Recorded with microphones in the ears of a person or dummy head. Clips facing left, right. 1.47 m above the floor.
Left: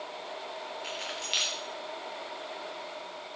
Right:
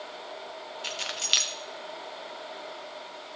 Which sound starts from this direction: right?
Keys jangling, at 0.8 s.